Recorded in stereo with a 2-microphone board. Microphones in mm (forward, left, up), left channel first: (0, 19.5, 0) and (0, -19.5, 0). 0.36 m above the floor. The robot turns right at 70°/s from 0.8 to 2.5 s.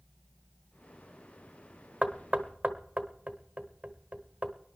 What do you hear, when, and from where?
2.0 s knocking: 30° right (ahead or behind), 1.1 m